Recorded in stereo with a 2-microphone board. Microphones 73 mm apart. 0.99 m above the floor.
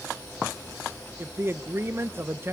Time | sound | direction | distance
1.2 | a man speaking | 35° right (ahead or behind) | 0.9 m